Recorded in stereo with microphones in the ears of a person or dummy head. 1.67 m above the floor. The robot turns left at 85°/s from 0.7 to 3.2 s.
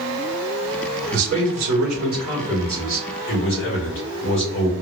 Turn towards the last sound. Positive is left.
turn(degrees=130)